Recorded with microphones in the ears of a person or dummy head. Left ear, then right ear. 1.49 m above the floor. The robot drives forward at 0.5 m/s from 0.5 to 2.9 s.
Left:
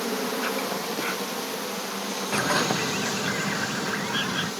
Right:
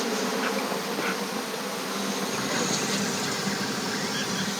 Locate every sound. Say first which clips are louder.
0.0 s an insect: right 1 dB; centre (ahead or behind)
2.3 s a bird: left 7 dB; 50° left (ahead or behind); by 4.5 s 35° left (ahead or behind)